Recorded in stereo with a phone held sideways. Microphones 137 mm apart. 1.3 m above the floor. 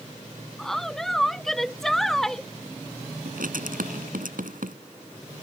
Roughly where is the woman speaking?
Centre.